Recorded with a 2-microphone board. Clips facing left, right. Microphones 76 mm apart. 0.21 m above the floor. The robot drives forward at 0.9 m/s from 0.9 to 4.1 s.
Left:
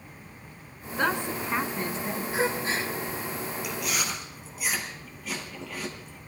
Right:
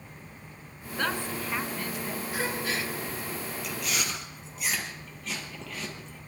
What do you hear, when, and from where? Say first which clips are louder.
1.0 s a woman speaking: left 3 dB; 20° left (ahead or behind), 1.8 m; by 2.2 s 30° left (ahead or behind), 1.1 m
2.3 s a gasp: left 4 dB; 25° left (ahead or behind), 2 m; by 2.9 s 30° left (ahead or behind), 1.8 m
3.6 s chewing: left 1 dB; 5° left (ahead or behind), 4 m